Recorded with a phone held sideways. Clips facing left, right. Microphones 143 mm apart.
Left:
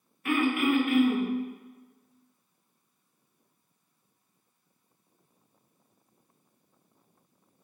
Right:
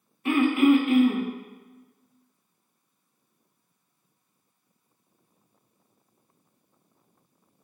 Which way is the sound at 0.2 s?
25° right (ahead or behind).